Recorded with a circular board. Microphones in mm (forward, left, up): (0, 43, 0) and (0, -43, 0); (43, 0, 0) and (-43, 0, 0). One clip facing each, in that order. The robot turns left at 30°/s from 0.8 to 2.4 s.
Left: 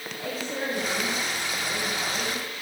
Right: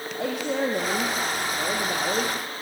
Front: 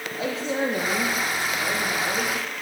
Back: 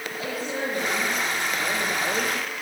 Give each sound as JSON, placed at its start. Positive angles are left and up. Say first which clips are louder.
{"t": 0.1, "sound": "a woman speaking", "louder": "right 6 dB, front 4 dB", "azimuth_deg": -65, "distance_m": 5.0}